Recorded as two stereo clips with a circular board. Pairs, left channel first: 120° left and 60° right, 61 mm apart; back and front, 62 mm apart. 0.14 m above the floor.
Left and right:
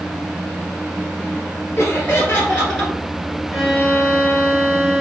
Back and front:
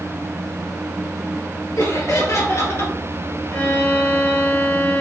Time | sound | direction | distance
1.8 | laughter | 175° left | 2.5 m
3.5 | a violin | 155° right | 2 m